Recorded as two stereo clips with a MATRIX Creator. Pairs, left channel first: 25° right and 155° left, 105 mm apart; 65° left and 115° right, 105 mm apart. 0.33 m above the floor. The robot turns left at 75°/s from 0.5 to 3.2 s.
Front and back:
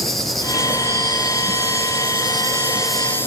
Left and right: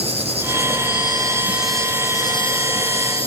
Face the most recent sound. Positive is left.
turn(degrees=45)